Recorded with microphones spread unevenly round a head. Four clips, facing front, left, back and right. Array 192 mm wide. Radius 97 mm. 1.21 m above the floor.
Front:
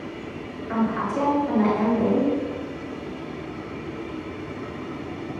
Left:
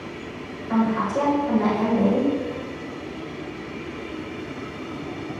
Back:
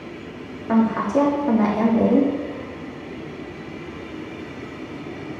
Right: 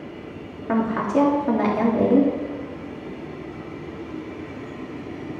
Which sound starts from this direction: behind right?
A woman speaking, at 0.7 s.